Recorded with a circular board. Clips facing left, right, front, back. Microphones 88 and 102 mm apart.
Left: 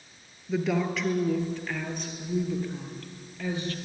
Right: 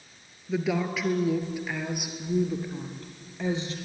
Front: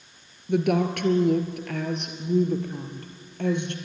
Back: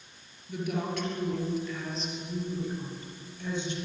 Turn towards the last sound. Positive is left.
turn(degrees=-20)